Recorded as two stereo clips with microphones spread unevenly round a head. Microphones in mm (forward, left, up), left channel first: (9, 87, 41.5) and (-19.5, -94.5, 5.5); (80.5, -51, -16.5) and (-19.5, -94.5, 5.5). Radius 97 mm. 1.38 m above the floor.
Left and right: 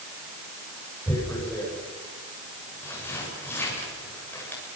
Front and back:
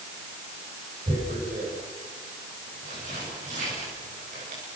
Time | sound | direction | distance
1.1 | tearing paper | 160° left | 6.5 m